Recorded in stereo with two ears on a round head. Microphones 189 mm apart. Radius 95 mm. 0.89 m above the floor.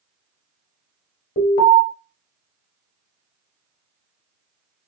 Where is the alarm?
40° left (ahead or behind), 0.9 m.